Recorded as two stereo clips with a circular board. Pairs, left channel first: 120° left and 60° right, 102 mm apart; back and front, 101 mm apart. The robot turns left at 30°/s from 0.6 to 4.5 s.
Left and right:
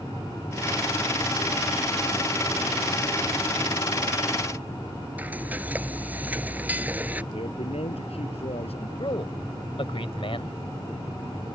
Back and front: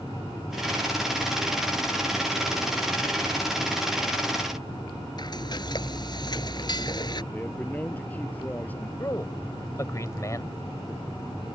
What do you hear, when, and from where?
5.2 s frying: 135° right
7.3 s a man speaking: 105° left
9.0 s a man speaking: 125° left